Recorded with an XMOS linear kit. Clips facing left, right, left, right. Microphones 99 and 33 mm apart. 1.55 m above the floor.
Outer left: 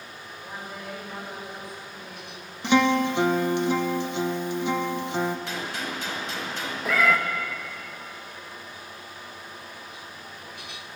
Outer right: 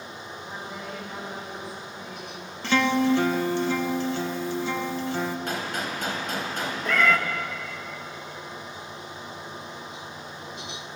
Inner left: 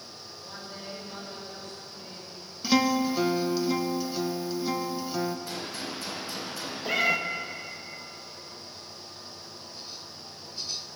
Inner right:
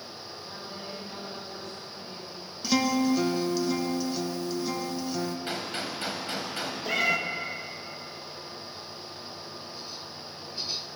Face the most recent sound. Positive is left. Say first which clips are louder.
# even, inner left 1 dB
turn(degrees=5)  # may be behind; listen again after turning